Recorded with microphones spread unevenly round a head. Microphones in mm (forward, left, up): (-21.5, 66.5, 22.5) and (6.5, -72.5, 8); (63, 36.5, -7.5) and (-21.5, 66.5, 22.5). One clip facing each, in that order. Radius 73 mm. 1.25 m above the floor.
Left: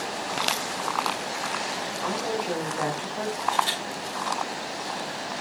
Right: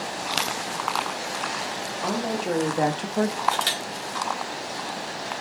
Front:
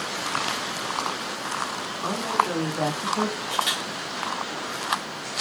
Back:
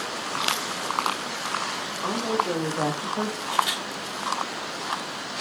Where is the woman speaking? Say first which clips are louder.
Right 2 dB, front 1 dB; 130° right, 3 m; by 3.3 s 105° right, 1.1 m.